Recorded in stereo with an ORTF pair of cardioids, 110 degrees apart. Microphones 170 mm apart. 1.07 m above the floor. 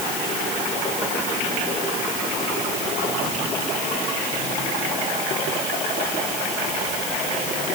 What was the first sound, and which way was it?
Only background noise.